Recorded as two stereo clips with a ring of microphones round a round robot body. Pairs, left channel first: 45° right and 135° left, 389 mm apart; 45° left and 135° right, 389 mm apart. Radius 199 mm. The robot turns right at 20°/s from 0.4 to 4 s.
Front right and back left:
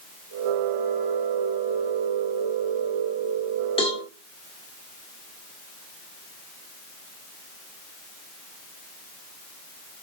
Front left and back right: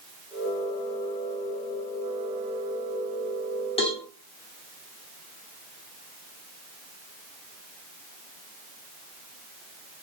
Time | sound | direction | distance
3.8 | a cowbell | straight ahead | 1.1 m